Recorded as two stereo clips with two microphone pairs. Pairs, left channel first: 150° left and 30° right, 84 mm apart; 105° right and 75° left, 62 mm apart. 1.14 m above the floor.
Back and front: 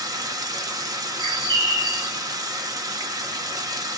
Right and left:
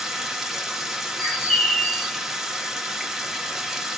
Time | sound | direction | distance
0.0 | running water | 15° right | 0.8 m
1.2 | a bird | 30° right | 1.8 m